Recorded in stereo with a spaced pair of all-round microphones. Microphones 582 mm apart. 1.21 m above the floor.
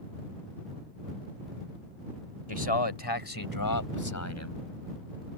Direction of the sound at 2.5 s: 50° left (ahead or behind).